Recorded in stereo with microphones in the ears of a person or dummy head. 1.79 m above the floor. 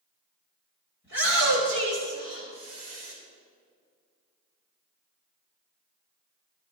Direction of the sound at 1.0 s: 60° left (ahead or behind).